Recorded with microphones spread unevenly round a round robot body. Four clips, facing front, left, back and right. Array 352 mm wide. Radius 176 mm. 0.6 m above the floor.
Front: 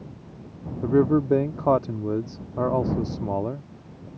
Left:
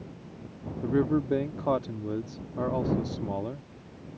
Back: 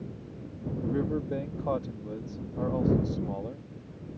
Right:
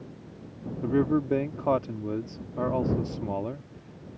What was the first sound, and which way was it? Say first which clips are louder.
A man speaking: right 1 dB, front 11 dB; 5° right.